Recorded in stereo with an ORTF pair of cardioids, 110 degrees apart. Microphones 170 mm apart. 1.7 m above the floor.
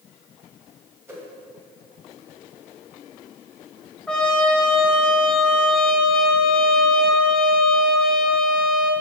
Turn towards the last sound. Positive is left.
turn(degrees=5)